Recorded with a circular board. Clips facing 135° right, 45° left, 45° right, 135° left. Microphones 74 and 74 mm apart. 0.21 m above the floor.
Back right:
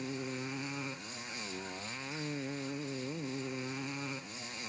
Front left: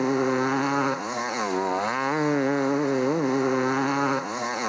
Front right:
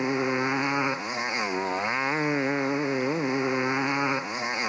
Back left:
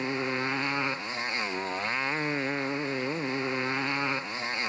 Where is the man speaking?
I don't hear a man speaking.